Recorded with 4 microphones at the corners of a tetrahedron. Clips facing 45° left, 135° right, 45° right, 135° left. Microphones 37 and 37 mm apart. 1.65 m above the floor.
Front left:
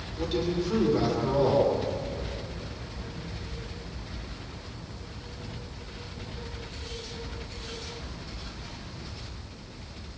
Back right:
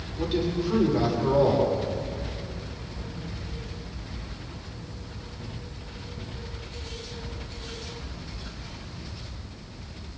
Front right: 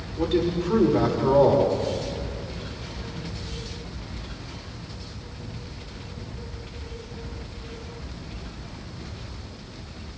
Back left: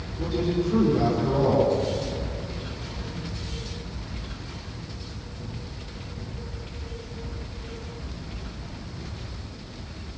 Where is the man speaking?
55° right, 7 m.